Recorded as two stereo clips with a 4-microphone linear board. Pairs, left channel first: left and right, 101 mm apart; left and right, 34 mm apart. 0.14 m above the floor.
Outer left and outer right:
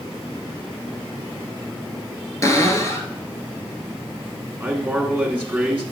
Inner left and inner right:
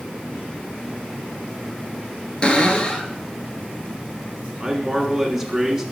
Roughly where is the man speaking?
Centre.